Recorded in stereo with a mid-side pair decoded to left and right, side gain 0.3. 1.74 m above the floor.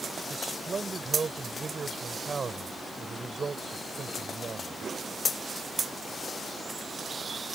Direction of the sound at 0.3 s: 50° right.